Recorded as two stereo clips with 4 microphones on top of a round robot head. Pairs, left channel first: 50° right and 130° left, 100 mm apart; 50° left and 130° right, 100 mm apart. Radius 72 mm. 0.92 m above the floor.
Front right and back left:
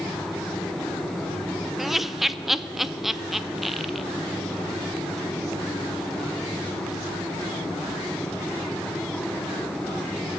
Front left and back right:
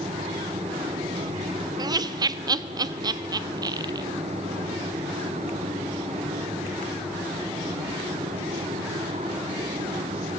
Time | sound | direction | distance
1.8 | laughter | 140° right | 0.5 m